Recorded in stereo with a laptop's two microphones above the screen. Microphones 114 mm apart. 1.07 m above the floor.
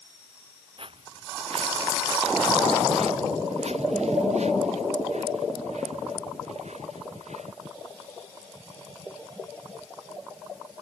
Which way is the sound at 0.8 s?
55° right (ahead or behind).